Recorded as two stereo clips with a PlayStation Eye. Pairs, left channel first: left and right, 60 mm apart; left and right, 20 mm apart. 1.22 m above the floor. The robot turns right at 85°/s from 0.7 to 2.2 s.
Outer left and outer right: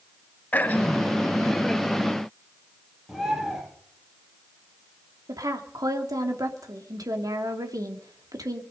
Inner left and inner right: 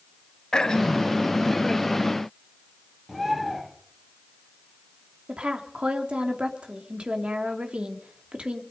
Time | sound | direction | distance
0.5 | throat clearing | 125° left | 1.2 m
3.1 | a bird | centre (ahead or behind) | 7 m
5.3 | a woman speaking | 90° right | 2.5 m